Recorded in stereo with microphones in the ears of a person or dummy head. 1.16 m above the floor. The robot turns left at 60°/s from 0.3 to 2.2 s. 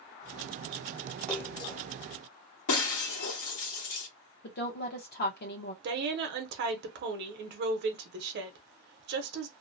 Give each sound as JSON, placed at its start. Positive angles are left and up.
{"t": 1.3, "sound": "a splash", "azimuth_deg": 175, "distance_m": 0.6}
{"t": 2.7, "sound": "breaking glass", "side_deg": 70, "distance_m": 1.3}
{"t": 4.4, "sound": "a woman speaking", "side_deg": 50, "distance_m": 0.8}
{"t": 5.8, "sound": "a woman speaking", "side_deg": -60, "distance_m": 0.8}